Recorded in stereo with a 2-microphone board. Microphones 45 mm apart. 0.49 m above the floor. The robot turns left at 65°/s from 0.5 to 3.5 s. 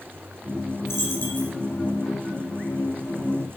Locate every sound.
0.8 s a dropped coin: 80° left, 3 m; by 1.5 s 40° left, 3 m